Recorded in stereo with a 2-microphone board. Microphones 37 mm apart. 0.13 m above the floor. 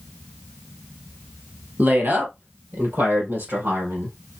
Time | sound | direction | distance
1.8 | a woman speaking | 50° right (ahead or behind) | 2 m